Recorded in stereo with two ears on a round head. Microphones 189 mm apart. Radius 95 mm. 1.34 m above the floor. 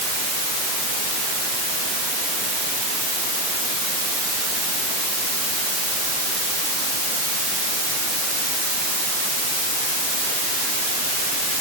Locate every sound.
Only background noise.